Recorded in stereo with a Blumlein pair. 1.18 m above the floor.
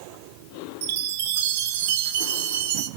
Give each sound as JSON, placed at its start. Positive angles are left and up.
{"t": 0.8, "sound": "a chime", "azimuth_deg": -55, "distance_m": 1.1}